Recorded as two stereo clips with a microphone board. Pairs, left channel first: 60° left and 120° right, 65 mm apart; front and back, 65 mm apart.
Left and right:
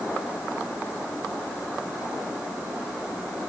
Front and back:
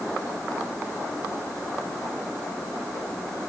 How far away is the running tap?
No running tap in this recording.